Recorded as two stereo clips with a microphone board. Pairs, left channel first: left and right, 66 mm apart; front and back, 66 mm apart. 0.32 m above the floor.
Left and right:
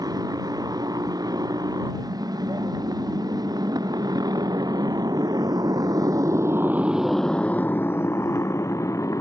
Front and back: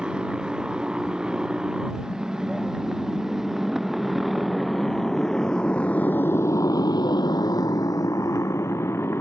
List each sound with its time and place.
0.0 s a motorcycle: 100° right; by 9.2 s 55° left